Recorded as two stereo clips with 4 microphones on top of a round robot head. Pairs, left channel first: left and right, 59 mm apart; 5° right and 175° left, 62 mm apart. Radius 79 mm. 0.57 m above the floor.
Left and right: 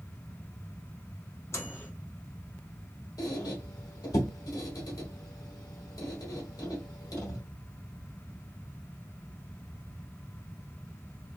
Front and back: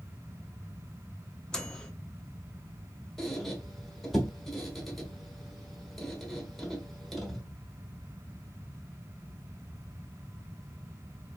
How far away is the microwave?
About 1.1 m.